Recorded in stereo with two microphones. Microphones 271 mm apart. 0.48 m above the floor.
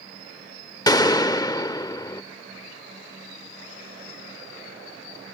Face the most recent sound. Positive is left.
turn(degrees=15)  # may be behind; listen again after turning